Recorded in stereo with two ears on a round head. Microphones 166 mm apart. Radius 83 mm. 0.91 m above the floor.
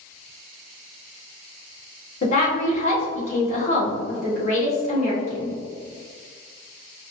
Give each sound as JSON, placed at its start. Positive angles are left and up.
{"t": 2.2, "sound": "a woman speaking", "side_deg": 40, "distance_m": 1.8}